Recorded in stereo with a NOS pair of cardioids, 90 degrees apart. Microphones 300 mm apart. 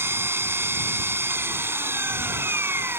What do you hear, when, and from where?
0.0 s an engine running: 10° right